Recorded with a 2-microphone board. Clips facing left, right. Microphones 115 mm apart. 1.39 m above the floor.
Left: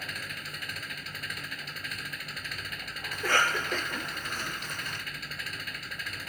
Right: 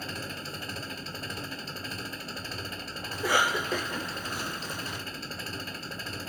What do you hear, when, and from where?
0.0 s an engine running: 30° right (ahead or behind)
3.1 s a cough: 10° right (ahead or behind)